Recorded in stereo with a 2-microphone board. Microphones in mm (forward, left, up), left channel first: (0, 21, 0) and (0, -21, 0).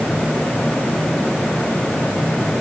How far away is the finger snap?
No finger snap in this recording.